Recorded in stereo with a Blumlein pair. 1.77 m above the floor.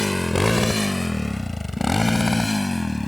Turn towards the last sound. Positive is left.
turn(degrees=5)